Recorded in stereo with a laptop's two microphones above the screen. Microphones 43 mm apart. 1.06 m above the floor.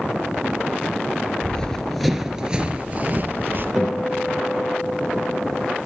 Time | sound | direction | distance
1.4 | running footsteps | 20° left (ahead or behind) | 1.2 m
3.8 | a guitar | 5° right (ahead or behind) | 4.5 m